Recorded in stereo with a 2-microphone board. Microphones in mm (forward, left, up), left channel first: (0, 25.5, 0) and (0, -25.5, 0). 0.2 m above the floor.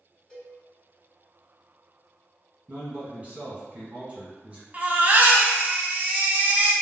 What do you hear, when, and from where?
0.3 s a cowbell: 10° left (ahead or behind), 1.1 m
2.7 s a man speaking: 30° right (ahead or behind), 1.4 m
4.7 s a baby crying: 35° right (ahead or behind), 0.6 m